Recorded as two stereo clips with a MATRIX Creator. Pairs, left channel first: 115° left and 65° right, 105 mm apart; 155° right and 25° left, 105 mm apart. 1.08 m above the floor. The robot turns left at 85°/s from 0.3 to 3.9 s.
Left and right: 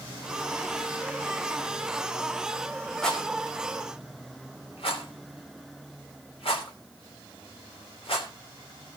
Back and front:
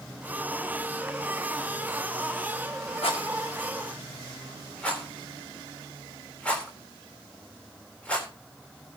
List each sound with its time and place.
3.0 s a rattle: 160° right, 3.5 m; by 8.3 s 125° left, 3.5 m